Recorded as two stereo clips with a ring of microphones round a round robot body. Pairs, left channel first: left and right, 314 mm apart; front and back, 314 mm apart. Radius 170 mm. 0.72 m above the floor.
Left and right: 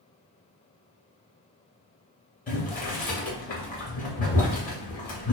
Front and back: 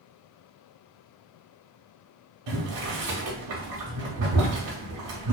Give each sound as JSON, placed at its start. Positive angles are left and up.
{"t": 2.5, "sound": "boiling", "azimuth_deg": 155, "distance_m": 1.0}